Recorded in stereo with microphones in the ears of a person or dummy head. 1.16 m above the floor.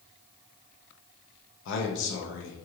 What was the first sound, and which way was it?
A man speaking, 70° left (ahead or behind).